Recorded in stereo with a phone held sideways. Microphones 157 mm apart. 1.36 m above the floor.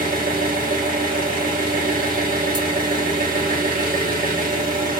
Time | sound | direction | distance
0.0 | an engine running | 60° right (ahead or behind) | 1.5 m